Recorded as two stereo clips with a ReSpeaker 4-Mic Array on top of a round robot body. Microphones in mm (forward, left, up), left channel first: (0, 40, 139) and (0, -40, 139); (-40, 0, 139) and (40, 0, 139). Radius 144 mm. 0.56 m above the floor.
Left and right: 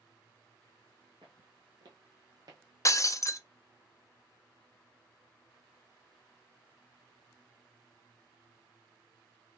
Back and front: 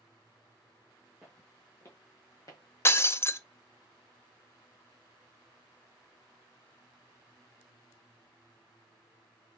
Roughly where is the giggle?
No giggle in this recording.